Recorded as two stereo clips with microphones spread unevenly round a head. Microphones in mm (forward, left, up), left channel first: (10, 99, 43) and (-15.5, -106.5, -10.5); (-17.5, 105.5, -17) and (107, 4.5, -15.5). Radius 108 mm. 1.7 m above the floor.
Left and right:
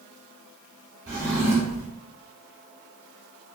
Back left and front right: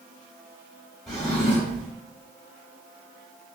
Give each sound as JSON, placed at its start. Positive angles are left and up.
{"t": 1.1, "sound": "a drawer", "azimuth_deg": -135, "distance_m": 1.2}